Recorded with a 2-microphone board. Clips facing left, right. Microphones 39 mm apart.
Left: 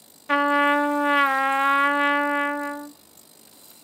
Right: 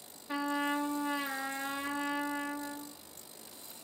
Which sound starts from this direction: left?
A trumpet, at 0.3 s.